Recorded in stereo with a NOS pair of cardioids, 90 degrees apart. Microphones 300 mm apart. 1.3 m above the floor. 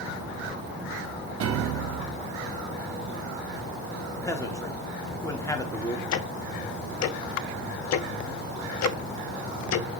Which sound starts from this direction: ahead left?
Ticking, at 6.1 s.